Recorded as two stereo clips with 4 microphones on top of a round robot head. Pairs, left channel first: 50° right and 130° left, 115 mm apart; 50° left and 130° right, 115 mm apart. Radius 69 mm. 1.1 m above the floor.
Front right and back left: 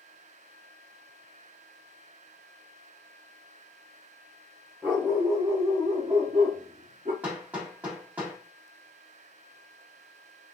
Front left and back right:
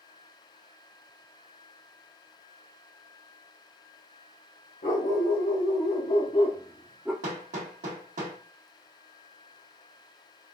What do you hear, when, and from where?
4.8 s a dog barking: 55° left, 1.5 m; by 7.1 s 155° left, 0.7 m
7.2 s hammering: 150° right, 1.3 m